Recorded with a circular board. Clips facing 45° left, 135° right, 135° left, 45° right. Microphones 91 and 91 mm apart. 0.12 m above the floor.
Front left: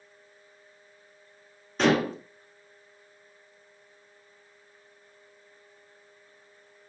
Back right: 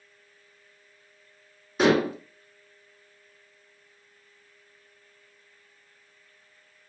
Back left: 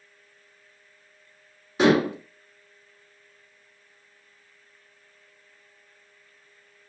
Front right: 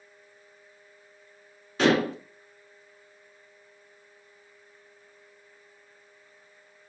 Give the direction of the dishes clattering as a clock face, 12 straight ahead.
7 o'clock.